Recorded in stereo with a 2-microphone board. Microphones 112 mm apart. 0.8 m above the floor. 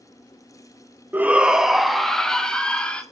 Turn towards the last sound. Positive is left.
turn(degrees=10)  # may be behind; listen again after turning